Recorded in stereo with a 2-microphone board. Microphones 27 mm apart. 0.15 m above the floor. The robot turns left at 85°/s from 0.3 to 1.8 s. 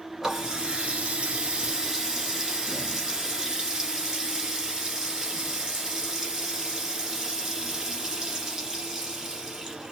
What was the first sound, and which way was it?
A running tap, 15° right.